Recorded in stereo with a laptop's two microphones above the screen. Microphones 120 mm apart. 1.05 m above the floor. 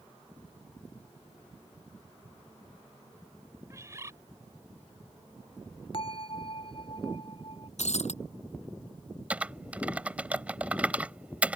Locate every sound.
3.7 s a bird: 25° right (ahead or behind)
5.9 s a bell: 45° left (ahead or behind)
7.8 s breaking glass: 65° left (ahead or behind)
9.3 s typing on a keyboard: 10° right (ahead or behind)